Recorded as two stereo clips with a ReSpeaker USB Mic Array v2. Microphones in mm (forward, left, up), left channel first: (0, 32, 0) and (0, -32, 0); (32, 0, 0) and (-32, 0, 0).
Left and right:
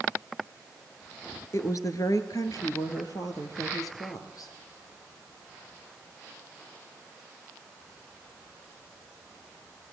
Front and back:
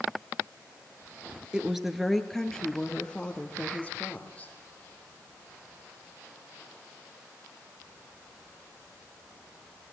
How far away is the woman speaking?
About 2.5 m.